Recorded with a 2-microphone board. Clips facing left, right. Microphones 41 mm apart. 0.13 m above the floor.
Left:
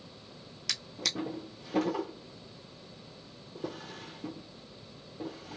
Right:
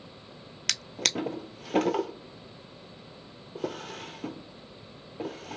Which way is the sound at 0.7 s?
75° right (ahead or behind).